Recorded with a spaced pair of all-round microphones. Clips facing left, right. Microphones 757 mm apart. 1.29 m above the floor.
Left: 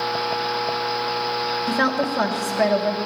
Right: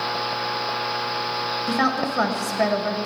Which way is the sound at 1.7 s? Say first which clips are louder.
Left 1 dB; 10° left (ahead or behind).